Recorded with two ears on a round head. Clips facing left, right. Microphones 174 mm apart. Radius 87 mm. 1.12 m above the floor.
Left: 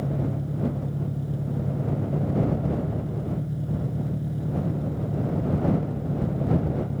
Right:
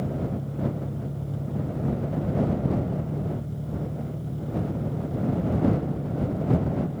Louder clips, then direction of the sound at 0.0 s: Left 1 dB; 20° left (ahead or behind).